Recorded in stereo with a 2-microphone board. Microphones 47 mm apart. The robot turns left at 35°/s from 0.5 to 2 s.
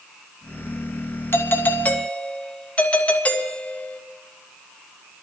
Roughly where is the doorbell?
Left.